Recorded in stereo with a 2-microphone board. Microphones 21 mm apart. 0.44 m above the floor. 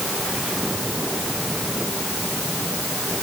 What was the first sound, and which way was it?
Only background noise.